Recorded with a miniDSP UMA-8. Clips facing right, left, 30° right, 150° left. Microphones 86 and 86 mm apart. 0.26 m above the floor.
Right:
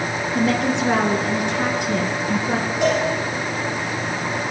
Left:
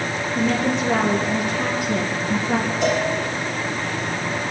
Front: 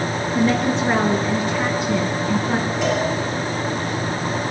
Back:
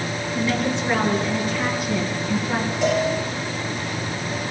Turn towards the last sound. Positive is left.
turn(degrees=-120)